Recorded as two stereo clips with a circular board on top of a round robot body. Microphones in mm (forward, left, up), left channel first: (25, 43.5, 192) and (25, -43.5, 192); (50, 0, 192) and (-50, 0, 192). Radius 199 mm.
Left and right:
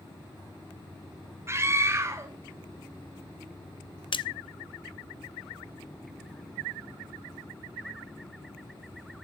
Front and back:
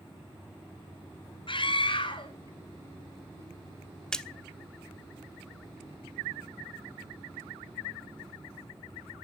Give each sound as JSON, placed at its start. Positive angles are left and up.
{"t": 1.5, "sound": "a scream", "azimuth_deg": -30, "distance_m": 3.5}
{"t": 4.1, "sound": "a splash", "azimuth_deg": 80, "distance_m": 1.2}